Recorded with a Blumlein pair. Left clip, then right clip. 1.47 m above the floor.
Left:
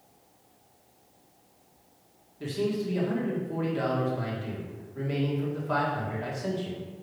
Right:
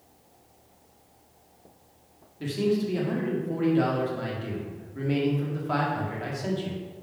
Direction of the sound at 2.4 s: 10° right.